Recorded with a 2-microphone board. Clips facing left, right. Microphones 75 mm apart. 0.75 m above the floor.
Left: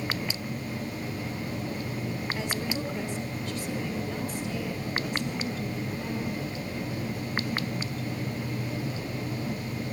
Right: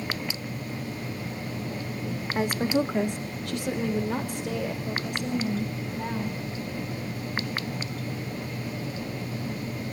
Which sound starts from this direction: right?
A woman speaking, at 2.4 s.